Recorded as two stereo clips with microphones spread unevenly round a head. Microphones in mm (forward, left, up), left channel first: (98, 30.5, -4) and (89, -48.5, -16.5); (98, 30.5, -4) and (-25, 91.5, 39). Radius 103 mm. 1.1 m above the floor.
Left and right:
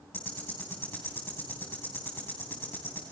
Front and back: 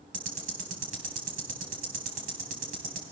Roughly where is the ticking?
Behind left.